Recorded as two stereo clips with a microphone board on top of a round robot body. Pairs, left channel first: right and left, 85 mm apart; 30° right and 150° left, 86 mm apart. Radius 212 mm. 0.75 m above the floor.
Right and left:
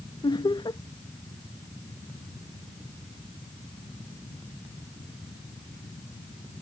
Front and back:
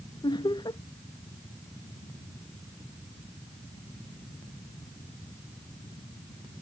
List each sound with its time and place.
0.2 s laughter: 60° right